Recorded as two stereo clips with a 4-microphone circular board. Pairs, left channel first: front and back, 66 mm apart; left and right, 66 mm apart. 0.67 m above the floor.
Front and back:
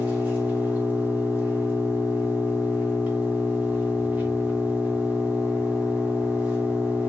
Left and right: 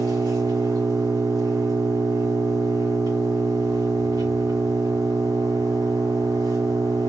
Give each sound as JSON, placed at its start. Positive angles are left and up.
{"t": 0.0, "sound": "an engine running", "azimuth_deg": -110, "distance_m": 2.5}